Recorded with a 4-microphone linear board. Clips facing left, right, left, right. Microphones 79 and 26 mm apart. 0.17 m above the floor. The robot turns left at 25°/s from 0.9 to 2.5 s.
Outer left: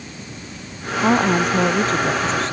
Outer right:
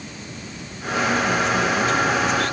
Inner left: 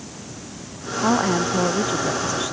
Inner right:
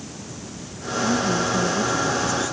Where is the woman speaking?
65° left; by 2.5 s 25° left.